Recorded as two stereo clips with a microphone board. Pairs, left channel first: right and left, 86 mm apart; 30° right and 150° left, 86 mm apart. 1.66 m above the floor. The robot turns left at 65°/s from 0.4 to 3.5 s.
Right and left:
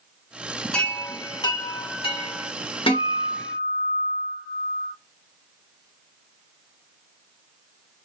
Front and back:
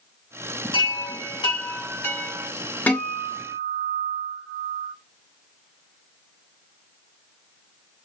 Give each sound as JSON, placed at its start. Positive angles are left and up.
{"t": 0.7, "sound": "a chime", "azimuth_deg": -10, "distance_m": 0.9}
{"t": 2.9, "sound": "a guitar", "azimuth_deg": -100, "distance_m": 1.2}